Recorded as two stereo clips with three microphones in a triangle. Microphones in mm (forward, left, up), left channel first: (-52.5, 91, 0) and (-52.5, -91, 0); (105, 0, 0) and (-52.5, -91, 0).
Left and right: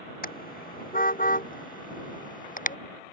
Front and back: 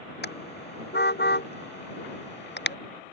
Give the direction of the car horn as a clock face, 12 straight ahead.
10 o'clock.